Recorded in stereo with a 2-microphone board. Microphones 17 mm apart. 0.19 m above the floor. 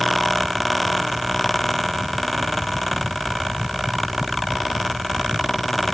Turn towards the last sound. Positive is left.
No sound to turn to.